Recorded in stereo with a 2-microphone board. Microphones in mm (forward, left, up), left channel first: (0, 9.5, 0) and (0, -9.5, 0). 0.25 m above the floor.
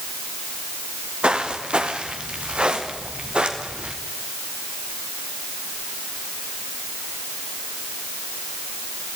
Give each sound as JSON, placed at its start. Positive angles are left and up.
{"t": 1.2, "sound": "footsteps", "side_deg": -80, "distance_m": 4.5}